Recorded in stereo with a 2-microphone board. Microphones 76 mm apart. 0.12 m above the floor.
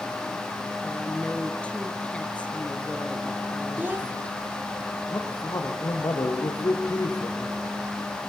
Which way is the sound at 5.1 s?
50° left (ahead or behind).